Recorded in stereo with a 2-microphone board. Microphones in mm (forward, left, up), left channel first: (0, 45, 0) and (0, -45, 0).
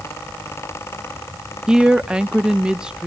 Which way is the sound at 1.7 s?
10° right (ahead or behind).